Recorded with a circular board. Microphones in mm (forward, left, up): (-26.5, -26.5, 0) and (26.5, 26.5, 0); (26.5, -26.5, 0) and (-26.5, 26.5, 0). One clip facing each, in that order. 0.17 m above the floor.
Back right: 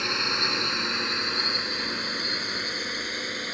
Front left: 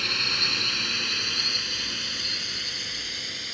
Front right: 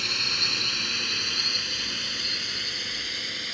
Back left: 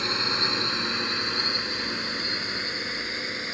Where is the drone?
170° left; by 3.5 s 170° right.